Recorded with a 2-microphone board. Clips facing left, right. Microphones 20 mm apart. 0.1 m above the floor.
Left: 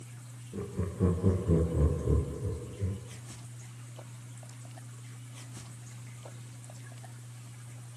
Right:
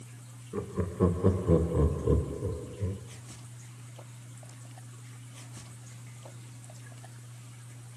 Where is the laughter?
60° right (ahead or behind), 5.5 m; by 3.0 s 35° right (ahead or behind), 2.5 m.